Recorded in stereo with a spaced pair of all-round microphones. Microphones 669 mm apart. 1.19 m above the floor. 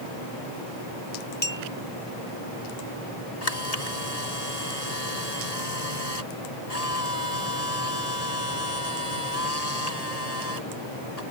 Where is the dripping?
I don't hear dripping.